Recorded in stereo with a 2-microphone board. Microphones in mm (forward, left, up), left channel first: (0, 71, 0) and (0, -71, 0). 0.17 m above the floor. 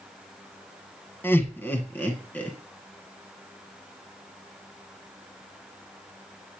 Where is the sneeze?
I don't hear a sneeze.